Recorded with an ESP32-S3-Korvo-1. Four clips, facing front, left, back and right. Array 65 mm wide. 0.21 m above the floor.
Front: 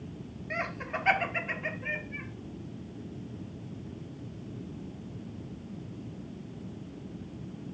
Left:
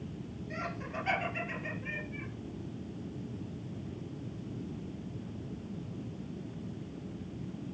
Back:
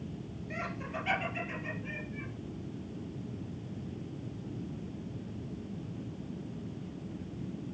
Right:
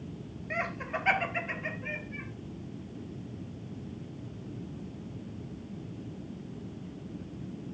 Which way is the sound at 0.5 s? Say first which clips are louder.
Right 6 dB, front 4 dB; 50° right.